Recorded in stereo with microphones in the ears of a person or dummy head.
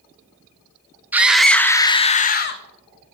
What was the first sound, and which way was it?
A scream, 10° right (ahead or behind).